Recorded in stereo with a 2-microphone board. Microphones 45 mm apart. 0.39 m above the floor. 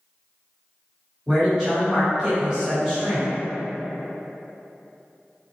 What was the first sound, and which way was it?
A man speaking, 15° right (ahead or behind).